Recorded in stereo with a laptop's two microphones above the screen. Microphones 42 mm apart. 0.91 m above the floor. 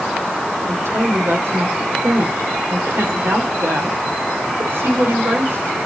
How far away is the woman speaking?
About 2.5 m.